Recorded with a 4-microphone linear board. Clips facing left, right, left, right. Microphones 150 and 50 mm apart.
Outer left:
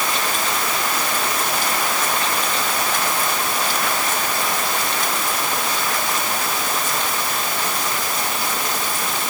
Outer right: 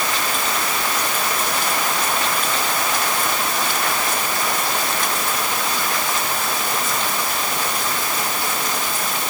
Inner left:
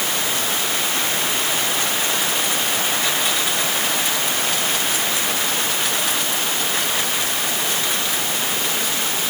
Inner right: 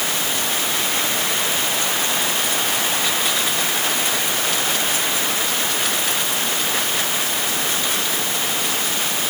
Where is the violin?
No violin in this recording.